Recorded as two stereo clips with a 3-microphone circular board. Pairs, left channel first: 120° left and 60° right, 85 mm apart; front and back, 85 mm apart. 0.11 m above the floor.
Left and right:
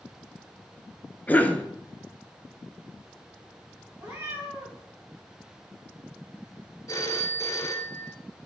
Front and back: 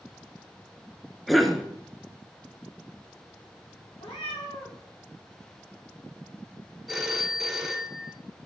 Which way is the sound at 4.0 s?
5° left.